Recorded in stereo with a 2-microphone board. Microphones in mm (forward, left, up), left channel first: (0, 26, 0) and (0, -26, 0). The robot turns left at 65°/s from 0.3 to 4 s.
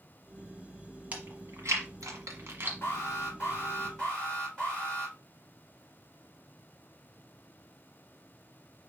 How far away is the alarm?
About 3.5 m.